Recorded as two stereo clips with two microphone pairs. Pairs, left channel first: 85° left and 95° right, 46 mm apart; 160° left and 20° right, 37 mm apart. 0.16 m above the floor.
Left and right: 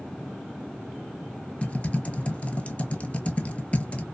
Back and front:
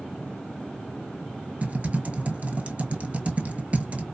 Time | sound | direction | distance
1.6 | typing on a keyboard | 30° left | 0.6 m